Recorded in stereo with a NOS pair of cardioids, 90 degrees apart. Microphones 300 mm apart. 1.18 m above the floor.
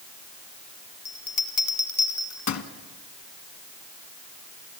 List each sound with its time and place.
1.1 s a bell: 65° left, 1.7 m